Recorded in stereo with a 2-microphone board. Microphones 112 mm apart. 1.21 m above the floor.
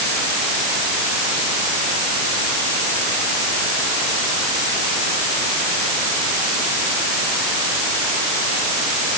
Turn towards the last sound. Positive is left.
No sound to turn to.